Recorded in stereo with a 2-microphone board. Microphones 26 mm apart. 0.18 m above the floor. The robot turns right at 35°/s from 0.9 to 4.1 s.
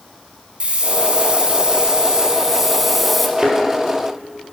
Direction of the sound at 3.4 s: 30° right (ahead or behind).